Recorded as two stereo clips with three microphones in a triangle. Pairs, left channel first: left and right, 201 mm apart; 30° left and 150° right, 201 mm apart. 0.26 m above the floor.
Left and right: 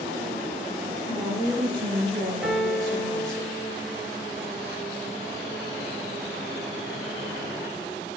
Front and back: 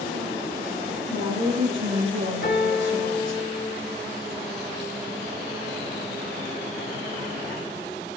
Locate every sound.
1.1 s a woman speaking: 155° right, 6 m; by 3.4 s 145° right, 5 m
2.4 s a piano: 5° right, 3 m